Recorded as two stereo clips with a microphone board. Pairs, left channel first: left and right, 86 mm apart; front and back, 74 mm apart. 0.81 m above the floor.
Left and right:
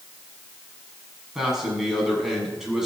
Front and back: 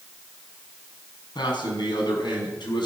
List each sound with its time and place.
1.4 s a man speaking: 5° right, 7.5 m